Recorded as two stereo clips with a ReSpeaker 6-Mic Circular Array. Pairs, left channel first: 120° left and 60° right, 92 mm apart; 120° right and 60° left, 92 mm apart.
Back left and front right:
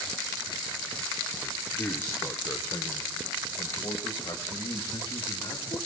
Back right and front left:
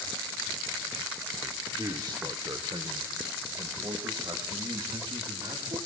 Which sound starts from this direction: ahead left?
A man speaking, at 1.4 s.